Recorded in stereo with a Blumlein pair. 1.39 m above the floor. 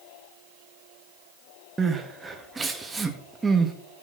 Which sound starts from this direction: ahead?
Crying, at 1.8 s.